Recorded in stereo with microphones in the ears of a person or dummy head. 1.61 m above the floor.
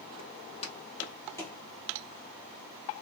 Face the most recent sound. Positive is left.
turn(degrees=5)  # may be behind; listen again after turning